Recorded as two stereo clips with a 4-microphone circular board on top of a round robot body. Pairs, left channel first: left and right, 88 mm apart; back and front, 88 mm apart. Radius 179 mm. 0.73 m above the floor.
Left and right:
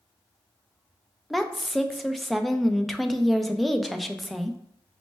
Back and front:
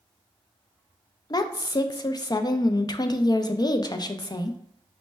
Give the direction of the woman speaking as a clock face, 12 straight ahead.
6 o'clock.